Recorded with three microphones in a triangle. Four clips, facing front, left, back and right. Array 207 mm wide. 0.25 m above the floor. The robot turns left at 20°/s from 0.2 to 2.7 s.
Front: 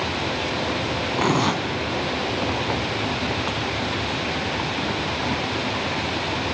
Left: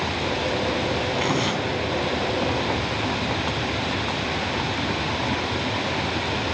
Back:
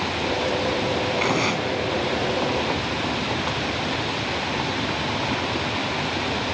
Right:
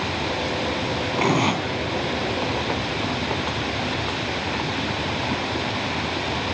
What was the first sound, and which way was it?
Tearing paper, 45° right.